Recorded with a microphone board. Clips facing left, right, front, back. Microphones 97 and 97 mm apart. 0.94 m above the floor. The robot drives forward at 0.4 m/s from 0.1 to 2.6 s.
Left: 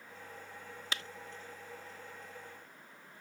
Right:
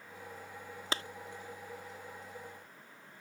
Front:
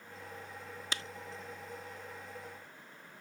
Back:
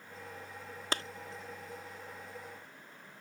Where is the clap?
140° right.